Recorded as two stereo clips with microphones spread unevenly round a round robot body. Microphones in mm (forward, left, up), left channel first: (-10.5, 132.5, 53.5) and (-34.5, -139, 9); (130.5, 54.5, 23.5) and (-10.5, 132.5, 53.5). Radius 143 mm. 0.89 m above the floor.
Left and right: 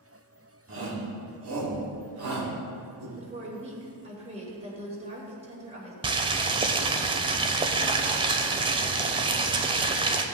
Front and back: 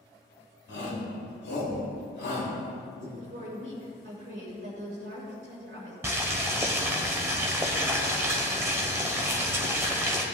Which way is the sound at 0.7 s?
45° right.